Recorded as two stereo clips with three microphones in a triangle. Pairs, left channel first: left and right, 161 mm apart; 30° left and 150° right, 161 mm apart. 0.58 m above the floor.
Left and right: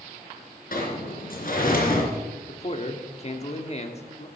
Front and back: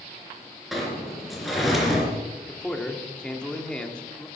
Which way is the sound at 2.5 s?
110° left.